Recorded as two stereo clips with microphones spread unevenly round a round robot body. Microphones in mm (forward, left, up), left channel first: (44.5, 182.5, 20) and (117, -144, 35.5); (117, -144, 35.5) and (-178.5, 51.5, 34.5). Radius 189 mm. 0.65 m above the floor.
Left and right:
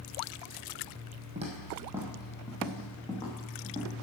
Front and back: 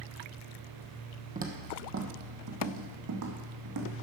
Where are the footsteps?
145° right, 1.3 m; by 4.0 s straight behind, 2.5 m.